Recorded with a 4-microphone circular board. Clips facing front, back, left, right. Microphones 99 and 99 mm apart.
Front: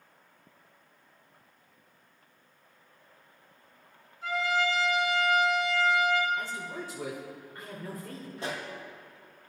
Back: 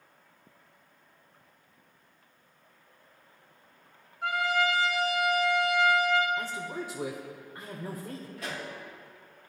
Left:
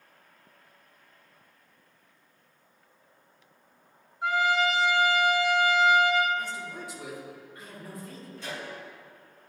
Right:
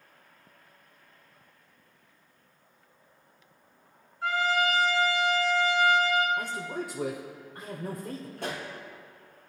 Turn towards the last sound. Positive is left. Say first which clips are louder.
# front 4 dB, right 2 dB
turn(degrees=-60)